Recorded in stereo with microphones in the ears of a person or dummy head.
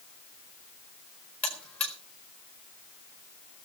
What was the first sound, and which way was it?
A buzzer, 10° left (ahead or behind).